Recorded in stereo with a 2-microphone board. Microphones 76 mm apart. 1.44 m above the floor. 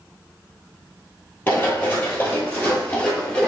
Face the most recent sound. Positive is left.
turn(degrees=15)  # may be behind; listen again after turning